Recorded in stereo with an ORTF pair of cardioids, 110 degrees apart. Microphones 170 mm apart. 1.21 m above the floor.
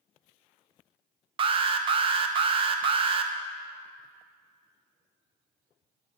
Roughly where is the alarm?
Ahead right.